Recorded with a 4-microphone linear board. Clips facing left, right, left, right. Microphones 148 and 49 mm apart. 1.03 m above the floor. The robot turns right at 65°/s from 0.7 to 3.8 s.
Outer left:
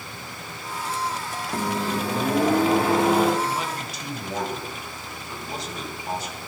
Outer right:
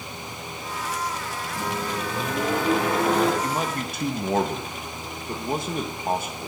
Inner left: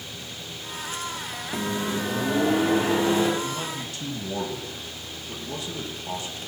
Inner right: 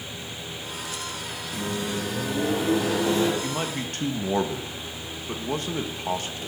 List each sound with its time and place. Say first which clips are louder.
1.5 s a microwave: outer left 4 dB, inner left 2 dB; 60° left, 2 m; by 3.3 s straight behind, 2 m
3.4 s a man speaking: outer right 1 dB, inner right 2 dB; 35° right (ahead or behind), 1.5 m; by 6.5 s 55° right (ahead or behind), 1.5 m